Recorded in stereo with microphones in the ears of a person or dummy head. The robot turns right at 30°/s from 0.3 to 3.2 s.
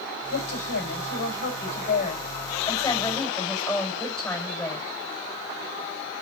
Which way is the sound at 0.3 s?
85° left.